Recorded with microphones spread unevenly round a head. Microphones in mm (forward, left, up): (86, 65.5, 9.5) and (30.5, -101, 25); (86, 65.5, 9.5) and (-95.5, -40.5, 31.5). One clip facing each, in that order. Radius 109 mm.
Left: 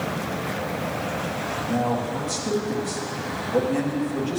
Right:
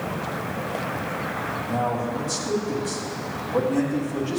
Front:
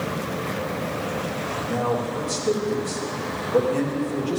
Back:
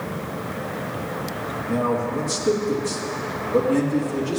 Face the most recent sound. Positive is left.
turn(degrees=145)